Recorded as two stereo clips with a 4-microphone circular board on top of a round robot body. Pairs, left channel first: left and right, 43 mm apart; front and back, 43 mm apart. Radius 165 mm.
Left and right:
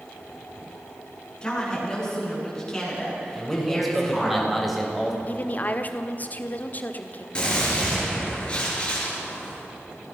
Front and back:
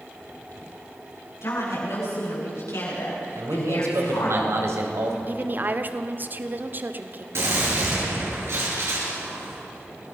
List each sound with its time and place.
1.4 s a woman speaking: 15° left, 8.5 m; by 4.3 s 5° left, 8.5 m
3.4 s a man speaking: straight behind, 4 m
5.3 s a woman speaking: 140° left, 1.6 m
7.3 s a gunshot: 160° left, 6 m